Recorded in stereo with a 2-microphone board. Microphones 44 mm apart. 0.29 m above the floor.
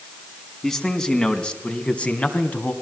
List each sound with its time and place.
0.6 s a man speaking: 15° left (ahead or behind), 3 m; by 2.7 s 35° left (ahead or behind), 3 m